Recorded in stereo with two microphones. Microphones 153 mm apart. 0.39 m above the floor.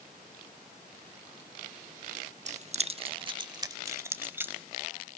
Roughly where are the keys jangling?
Right.